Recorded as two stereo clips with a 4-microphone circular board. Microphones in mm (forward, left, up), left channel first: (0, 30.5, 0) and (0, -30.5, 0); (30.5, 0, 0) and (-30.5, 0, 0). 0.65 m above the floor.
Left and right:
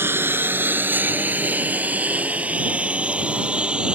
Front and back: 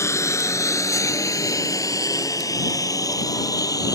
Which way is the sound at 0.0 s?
40° right.